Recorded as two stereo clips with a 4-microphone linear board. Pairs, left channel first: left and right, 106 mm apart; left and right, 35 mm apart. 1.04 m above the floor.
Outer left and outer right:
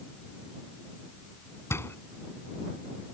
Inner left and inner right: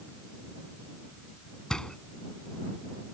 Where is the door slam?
25° left (ahead or behind).